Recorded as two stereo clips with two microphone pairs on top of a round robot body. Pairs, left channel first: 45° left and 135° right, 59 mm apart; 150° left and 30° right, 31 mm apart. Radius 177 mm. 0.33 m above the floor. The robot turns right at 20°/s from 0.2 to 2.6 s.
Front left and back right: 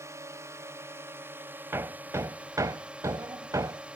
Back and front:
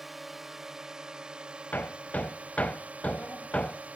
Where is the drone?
120° right; by 4.0 s 70° right.